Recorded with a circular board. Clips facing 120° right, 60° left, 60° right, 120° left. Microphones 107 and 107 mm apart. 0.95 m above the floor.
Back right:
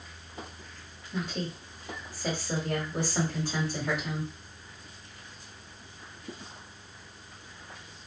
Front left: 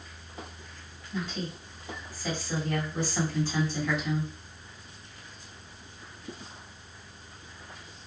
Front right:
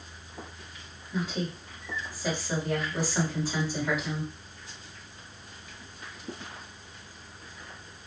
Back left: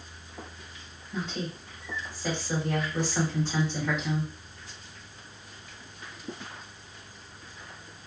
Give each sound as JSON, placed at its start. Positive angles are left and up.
{"t": 1.1, "sound": "a woman speaking", "azimuth_deg": -145, "distance_m": 1.6}